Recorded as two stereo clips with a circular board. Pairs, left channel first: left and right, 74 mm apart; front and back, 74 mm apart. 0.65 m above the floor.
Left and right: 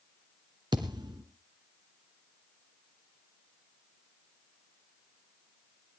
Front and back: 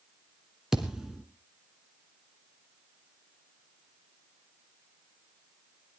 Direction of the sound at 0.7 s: 95° right.